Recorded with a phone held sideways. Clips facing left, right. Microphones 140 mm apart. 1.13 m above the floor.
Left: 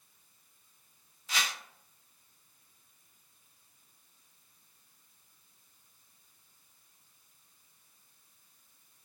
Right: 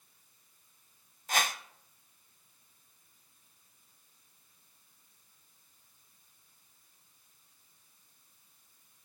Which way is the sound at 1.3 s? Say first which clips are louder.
Right 5 dB; 50° right (ahead or behind).